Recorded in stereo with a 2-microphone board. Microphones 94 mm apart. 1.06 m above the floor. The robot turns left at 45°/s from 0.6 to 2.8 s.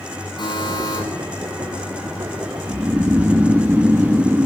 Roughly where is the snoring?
Right.